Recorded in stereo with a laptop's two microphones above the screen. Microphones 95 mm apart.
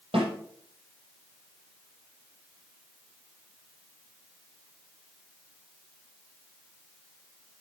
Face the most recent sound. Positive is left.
turn(degrees=-75)  # may be behind; listen again after turning